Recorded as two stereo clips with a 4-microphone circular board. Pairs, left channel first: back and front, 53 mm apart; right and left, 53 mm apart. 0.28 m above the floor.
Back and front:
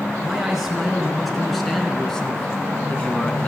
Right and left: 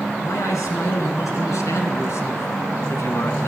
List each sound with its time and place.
0.2 s a man speaking: 80° right, 4.5 m; by 3.5 s 120° right, 3 m